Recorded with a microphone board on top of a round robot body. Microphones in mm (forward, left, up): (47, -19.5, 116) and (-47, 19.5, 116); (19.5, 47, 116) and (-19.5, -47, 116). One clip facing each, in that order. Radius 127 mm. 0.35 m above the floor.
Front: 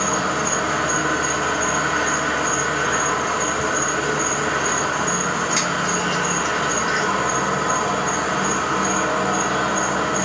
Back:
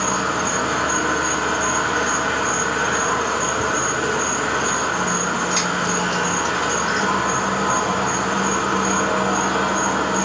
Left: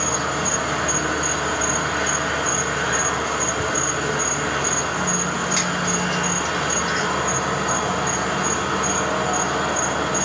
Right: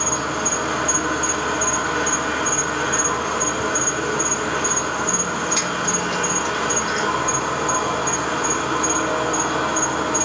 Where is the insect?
150° right, 1.7 m.